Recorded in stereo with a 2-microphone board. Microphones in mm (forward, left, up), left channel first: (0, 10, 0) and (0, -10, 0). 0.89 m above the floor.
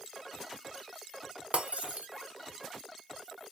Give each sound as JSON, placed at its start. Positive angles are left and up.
{"t": 1.5, "sound": "breaking glass", "side_deg": -75, "distance_m": 1.2}